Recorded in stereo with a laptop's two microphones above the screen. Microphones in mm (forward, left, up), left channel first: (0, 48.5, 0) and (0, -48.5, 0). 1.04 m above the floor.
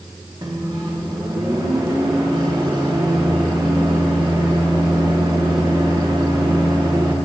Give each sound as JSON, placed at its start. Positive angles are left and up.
{"t": 0.4, "sound": "a microwave", "side_deg": -45, "distance_m": 1.4}